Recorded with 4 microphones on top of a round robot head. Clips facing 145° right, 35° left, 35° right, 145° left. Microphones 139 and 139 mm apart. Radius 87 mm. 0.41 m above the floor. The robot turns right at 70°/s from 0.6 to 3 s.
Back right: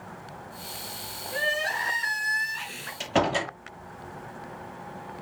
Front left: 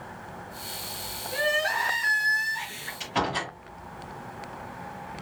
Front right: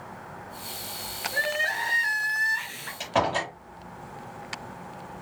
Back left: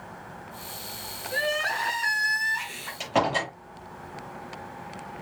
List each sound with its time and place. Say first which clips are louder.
1.3 s crying: front left 3 dB, back left 3 dB; 110° left, 6 m; by 2.9 s 135° right, 6 m
3.0 s a door slam: back right 4 dB, back left 1 dB; 140° right, 8 m